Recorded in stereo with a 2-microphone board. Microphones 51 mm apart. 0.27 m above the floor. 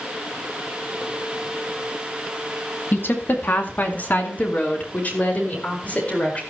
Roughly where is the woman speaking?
Left.